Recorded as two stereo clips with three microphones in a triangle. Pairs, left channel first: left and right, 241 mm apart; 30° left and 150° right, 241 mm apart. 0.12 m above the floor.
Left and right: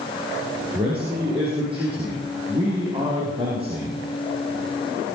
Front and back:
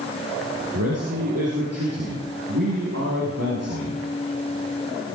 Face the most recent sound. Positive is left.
turn(degrees=-160)